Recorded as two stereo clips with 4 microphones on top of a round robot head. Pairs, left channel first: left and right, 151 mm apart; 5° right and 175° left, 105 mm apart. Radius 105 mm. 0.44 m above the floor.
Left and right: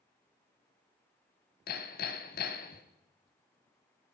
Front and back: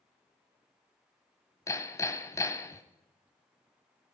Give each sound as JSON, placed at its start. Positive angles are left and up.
{"t": 1.7, "sound": "hammering", "azimuth_deg": 60, "distance_m": 1.2}